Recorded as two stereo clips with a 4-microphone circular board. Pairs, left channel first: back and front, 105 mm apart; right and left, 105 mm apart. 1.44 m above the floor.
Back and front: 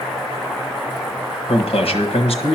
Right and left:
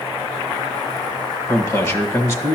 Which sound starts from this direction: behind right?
A man speaking, at 1.5 s.